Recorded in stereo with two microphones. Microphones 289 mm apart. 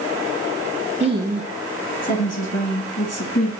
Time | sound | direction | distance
1.0 | a woman speaking | 25° right (ahead or behind) | 1.3 m